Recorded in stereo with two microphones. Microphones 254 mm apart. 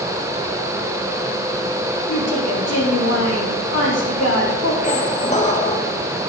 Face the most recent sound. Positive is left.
turn(degrees=30)  # may be behind; listen again after turning